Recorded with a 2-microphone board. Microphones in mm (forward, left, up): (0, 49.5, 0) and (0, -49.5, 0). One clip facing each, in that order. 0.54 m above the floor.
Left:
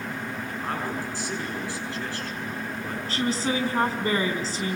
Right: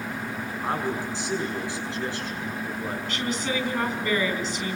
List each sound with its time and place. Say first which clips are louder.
0.6 s a man speaking: right 3 dB; 20° right (ahead or behind), 7.5 m
3.1 s a woman speaking: left 4 dB; 35° left (ahead or behind), 4 m